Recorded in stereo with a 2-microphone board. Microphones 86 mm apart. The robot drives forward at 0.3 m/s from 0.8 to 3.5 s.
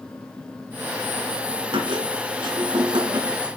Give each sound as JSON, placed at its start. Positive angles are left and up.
{"t": 1.7, "sound": "a squeak", "side_deg": -65, "distance_m": 3.0}